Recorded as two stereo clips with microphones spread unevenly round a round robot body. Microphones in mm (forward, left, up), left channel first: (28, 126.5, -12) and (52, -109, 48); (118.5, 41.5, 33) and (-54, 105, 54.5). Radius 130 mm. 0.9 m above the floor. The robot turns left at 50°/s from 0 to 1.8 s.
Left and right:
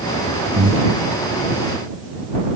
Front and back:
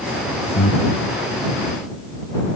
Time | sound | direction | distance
0.6 | breathing | 35° right | ?